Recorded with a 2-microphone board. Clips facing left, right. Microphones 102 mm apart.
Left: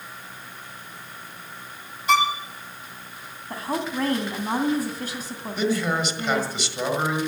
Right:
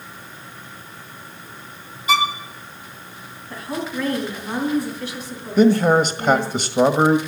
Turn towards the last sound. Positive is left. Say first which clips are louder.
# right 10 dB
turn(degrees=-50)  # may be behind; listen again after turning